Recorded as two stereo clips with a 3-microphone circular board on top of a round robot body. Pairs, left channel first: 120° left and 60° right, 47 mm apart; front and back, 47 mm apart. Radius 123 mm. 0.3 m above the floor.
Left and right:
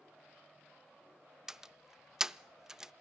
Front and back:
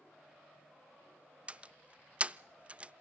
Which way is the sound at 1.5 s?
130° right.